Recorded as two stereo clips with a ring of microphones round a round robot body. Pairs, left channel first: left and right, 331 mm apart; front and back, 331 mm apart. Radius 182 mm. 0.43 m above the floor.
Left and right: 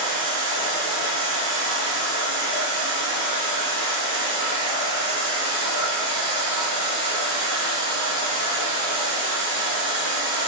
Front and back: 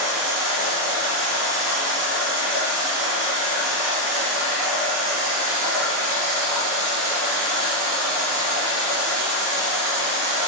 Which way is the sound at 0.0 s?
170° left.